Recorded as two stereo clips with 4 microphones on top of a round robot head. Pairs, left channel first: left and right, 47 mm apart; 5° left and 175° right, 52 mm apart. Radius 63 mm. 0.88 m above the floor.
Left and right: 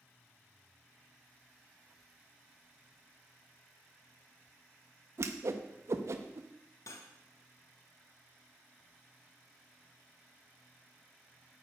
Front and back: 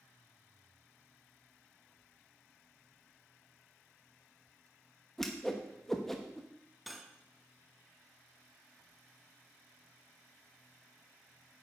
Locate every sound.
5.2 s a whoosh: 75° right, 0.8 m
6.9 s cutlery clinking: 100° left, 0.9 m